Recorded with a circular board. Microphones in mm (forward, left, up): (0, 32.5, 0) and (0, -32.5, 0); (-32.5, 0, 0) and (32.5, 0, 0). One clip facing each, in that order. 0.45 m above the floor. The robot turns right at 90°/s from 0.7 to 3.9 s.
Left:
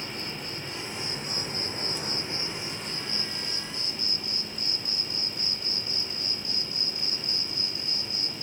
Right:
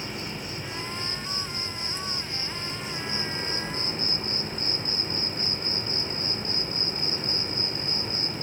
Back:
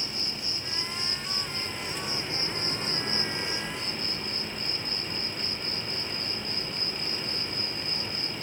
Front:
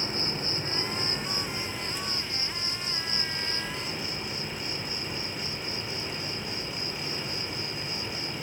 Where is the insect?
10° right, 2 m; by 8.4 s 80° right, 2 m.